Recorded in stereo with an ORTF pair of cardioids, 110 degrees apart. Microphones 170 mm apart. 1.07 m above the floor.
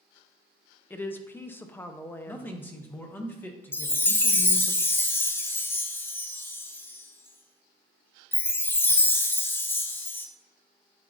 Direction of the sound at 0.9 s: 10° left.